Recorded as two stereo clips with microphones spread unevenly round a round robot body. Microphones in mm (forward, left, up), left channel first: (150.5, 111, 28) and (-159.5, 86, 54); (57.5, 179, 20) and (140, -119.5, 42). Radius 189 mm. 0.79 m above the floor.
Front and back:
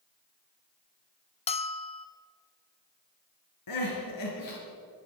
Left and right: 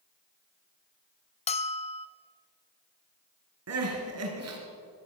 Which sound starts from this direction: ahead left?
A bell, at 1.5 s.